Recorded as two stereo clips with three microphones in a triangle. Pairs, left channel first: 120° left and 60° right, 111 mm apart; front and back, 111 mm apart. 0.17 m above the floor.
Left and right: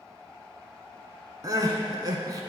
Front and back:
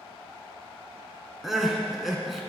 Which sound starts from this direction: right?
Crying, at 1.4 s.